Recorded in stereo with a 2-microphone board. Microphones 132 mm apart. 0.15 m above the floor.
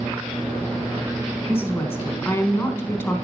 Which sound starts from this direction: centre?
A woman speaking, at 1.5 s.